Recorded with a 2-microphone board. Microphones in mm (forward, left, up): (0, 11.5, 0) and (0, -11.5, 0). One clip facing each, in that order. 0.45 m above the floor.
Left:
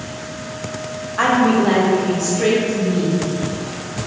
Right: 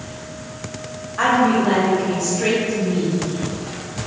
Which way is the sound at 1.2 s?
15° left (ahead or behind).